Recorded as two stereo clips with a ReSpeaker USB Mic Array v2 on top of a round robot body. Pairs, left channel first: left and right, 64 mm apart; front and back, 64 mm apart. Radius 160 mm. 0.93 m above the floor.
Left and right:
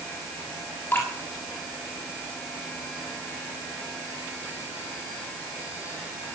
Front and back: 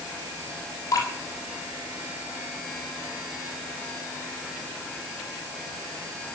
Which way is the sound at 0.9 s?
35° left.